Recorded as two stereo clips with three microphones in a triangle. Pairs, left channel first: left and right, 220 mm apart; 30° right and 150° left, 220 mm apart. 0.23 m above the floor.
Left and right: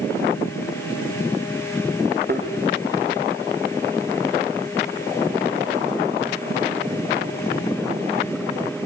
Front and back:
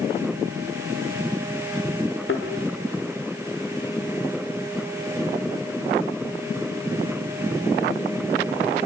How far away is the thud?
About 5 m.